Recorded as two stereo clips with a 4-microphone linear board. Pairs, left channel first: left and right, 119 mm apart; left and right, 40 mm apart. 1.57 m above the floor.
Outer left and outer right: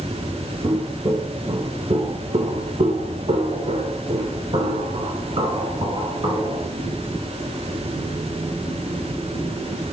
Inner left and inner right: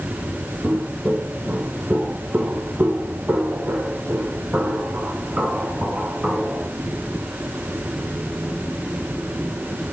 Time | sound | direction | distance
0.6 | footsteps | 35° right (ahead or behind) | 3 m